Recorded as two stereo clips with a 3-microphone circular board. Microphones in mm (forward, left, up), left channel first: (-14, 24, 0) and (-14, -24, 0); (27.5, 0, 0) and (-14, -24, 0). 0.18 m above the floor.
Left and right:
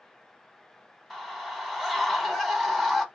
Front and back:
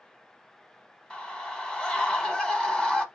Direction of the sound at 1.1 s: 15° left.